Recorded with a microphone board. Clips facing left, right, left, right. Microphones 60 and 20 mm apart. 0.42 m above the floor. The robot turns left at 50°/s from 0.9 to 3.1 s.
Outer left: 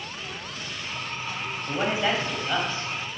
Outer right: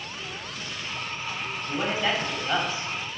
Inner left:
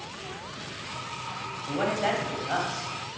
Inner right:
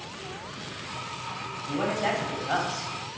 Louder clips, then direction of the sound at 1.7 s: Outer left 2 dB, inner left 1 dB; 35° left.